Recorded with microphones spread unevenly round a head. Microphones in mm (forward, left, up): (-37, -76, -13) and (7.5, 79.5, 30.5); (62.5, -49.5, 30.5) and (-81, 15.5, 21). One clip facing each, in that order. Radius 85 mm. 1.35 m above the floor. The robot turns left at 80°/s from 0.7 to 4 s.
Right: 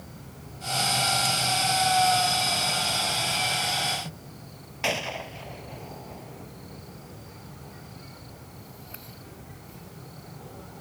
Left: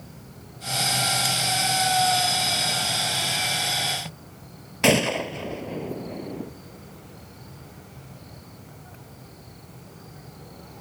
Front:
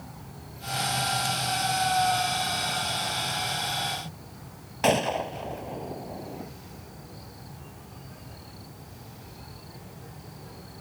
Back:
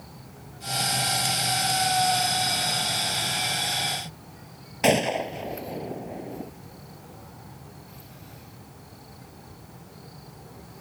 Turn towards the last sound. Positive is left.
turn(degrees=80)